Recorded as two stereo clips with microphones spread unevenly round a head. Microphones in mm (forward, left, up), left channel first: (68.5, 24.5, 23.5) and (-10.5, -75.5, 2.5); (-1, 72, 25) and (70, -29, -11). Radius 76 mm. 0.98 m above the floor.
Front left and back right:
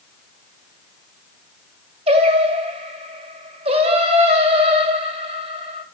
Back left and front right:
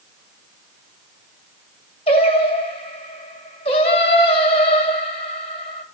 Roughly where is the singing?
Behind.